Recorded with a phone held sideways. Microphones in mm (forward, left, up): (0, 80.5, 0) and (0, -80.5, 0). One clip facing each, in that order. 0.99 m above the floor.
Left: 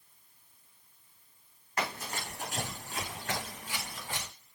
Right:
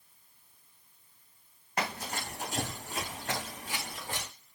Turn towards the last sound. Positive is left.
turn(degrees=-40)  # may be behind; listen again after turning